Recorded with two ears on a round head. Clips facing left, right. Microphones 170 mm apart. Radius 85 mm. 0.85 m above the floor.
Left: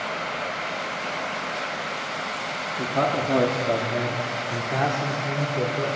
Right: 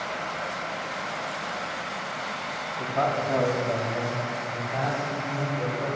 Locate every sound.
2.8 s a man speaking: 40° left (ahead or behind), 1.3 m; by 5.9 s 75° left (ahead or behind), 2.5 m